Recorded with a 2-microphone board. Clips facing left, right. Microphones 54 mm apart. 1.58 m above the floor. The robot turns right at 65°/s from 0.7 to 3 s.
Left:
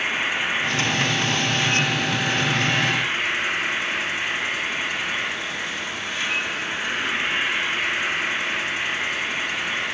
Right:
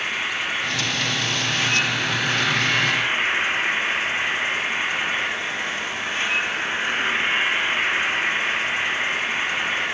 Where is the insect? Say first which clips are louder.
Left 2 dB; 150° left, 0.9 m; by 9.9 s 60° right, 0.9 m.